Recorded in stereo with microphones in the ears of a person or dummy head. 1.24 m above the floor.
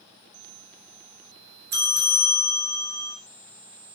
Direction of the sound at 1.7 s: 55° right (ahead or behind).